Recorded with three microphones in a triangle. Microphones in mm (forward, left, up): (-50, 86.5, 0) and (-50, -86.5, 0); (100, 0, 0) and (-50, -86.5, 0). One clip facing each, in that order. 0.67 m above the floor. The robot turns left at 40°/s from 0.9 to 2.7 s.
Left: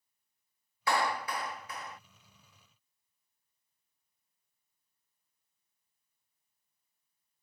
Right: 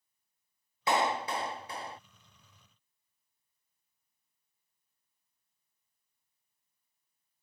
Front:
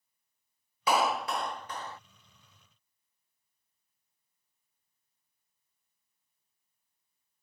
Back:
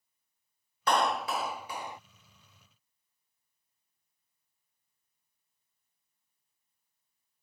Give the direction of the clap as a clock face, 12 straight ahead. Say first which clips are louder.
Right 2 dB, even; 2 o'clock.